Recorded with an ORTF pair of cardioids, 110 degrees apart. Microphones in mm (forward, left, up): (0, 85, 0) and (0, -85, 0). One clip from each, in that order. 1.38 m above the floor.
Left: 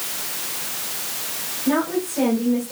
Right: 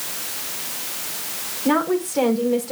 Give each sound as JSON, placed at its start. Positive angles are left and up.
{"t": 1.6, "sound": "a woman speaking", "azimuth_deg": -65, "distance_m": 4.5}